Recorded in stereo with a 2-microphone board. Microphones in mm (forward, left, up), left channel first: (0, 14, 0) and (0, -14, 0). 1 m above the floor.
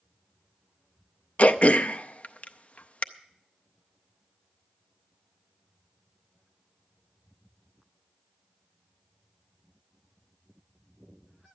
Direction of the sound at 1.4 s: 50° left (ahead or behind).